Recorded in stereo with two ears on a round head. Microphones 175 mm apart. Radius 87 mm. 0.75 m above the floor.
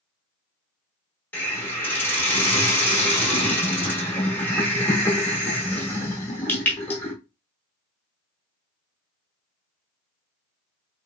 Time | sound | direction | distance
1.3 | a hiss | 10° left (ahead or behind) | 0.9 m